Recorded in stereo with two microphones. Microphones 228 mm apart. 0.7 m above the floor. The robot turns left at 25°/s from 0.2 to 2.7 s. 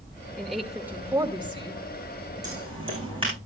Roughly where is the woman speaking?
Ahead.